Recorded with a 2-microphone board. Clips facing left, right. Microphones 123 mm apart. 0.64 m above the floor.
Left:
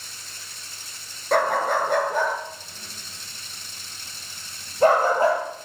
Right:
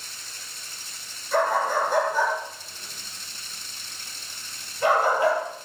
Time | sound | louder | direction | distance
1.3 | a dog barking | left 2 dB | 70° left (ahead or behind) | 4 m